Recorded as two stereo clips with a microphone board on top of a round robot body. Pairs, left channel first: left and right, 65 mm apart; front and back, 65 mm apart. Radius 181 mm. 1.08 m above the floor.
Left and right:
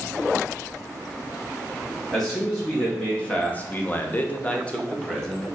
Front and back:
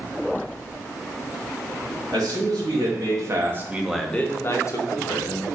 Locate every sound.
2.1 s a man speaking: 170° left, 1.4 m; by 5.5 s 10° left, 1.2 m